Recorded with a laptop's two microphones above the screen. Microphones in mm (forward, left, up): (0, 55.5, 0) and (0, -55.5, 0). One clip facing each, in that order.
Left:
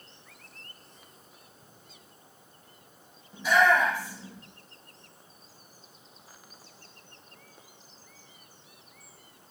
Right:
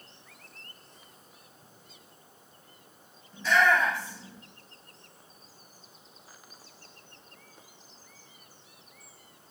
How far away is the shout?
About 2.5 m.